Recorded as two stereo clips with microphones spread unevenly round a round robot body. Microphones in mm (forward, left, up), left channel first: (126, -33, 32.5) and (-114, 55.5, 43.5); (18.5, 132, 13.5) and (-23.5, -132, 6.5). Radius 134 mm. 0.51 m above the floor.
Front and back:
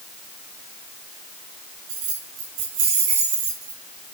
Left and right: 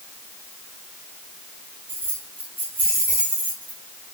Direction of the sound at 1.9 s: Straight behind.